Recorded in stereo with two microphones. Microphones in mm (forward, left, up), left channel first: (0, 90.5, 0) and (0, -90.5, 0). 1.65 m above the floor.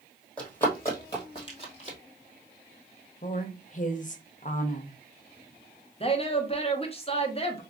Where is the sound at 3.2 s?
45° left (ahead or behind), 0.7 m.